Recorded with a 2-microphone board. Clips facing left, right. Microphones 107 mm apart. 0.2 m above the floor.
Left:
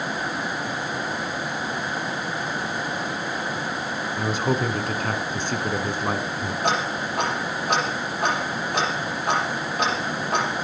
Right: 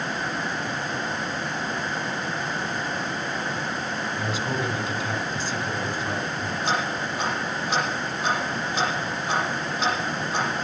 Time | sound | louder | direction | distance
4.2 | a man speaking | left 6 dB | 50° left (ahead or behind) | 1.6 m
6.6 | ticking | left 2 dB | 60° left (ahead or behind) | 8 m